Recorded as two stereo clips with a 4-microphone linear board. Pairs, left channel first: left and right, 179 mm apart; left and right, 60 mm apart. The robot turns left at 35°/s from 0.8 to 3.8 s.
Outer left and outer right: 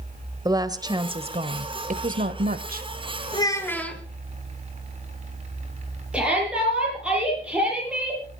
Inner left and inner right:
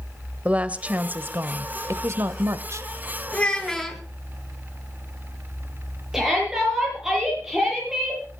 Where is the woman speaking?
25° right, 1.2 m; by 2.9 s 100° right, 1.2 m.